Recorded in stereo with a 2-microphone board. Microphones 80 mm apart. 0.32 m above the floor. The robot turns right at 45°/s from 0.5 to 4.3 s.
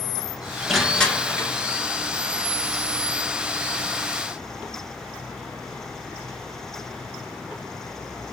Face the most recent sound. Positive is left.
turn(degrees=160)